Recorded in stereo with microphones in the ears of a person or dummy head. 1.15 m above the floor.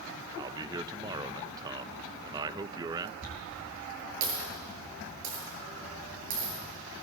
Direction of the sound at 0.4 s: 15° right (ahead or behind).